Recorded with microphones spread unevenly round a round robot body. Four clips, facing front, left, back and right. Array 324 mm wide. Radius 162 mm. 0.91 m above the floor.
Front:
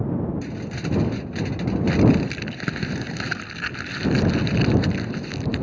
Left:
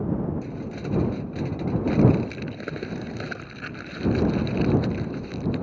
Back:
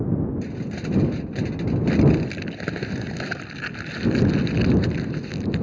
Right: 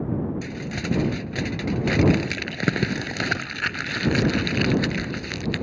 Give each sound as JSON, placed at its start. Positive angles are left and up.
{"t": 0.4, "sound": "crumpling", "azimuth_deg": -85}